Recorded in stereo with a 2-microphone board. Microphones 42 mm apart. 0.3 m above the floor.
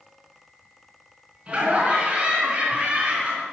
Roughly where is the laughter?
Right.